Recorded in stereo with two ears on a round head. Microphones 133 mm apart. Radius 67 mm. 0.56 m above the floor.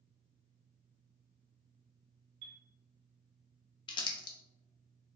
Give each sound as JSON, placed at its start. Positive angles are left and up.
{"t": 2.4, "sound": "a chime", "side_deg": -55, "distance_m": 1.0}
{"t": 3.9, "sound": "crumpling", "side_deg": 30, "distance_m": 0.6}